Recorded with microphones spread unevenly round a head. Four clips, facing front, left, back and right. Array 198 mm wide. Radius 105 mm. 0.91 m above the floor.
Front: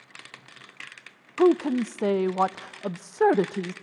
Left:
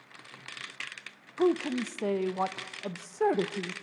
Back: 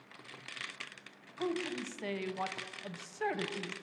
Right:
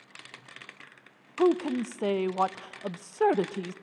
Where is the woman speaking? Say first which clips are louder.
Right 2 dB, front 16 dB; 10° right, 0.5 m.